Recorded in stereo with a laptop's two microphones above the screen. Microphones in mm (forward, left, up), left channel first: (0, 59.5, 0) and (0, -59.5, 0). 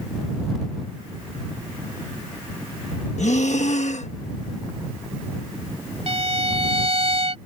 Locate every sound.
3.2 s breathing: 75° left (ahead or behind)
6.1 s a violin: 55° right (ahead or behind)